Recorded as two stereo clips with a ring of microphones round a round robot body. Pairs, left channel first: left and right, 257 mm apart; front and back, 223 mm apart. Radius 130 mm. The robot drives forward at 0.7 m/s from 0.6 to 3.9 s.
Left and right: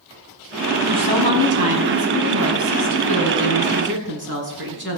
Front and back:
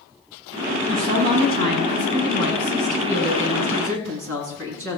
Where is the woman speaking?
120° right, 4.5 m; by 5.0 s 140° right, 6 m.